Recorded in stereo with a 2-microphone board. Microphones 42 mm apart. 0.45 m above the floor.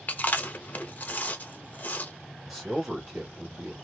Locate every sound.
0.1 s chewing: 40° left (ahead or behind), 0.6 m
2.5 s a man speaking: 5° right (ahead or behind), 1.6 m